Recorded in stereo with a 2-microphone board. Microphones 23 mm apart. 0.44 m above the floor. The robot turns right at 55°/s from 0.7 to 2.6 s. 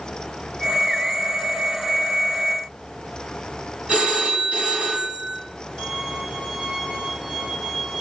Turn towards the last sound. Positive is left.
turn(degrees=-90)